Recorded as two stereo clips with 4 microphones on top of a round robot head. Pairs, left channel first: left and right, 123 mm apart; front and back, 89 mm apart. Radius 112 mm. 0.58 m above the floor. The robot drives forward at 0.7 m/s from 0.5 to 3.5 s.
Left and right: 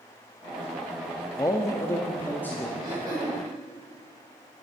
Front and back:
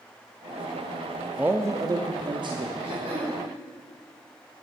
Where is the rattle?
I don't hear a rattle.